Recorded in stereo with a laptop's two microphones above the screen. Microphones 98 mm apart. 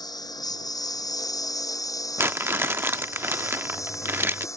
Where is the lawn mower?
40° left (ahead or behind); by 4.6 s 30° left (ahead or behind).